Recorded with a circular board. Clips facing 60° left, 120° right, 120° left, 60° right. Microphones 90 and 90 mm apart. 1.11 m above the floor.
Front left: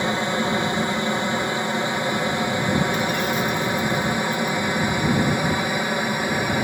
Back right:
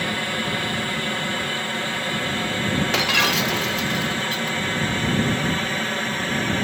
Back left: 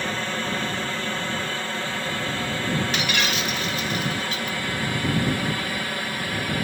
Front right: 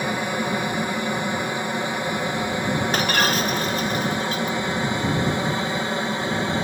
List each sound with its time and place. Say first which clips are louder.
0.0 s an aircraft: front left 4 dB, front right 3 dB; 5° left; by 6.7 s 5° right
2.9 s breaking glass: even, front right 4 dB; 110° right